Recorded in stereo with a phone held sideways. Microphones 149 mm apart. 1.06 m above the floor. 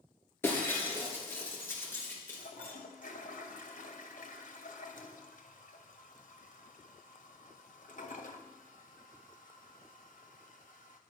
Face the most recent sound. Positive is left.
turn(degrees=55)  # may be behind; listen again after turning